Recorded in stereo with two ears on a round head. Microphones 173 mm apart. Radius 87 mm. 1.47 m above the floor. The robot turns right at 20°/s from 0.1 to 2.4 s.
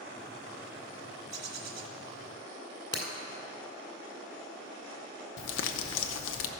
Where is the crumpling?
75° left (ahead or behind), 0.6 m.